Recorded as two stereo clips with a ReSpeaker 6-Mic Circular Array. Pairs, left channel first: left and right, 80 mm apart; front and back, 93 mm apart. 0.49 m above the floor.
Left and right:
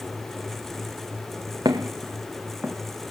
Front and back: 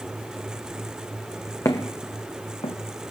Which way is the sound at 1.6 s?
55° right.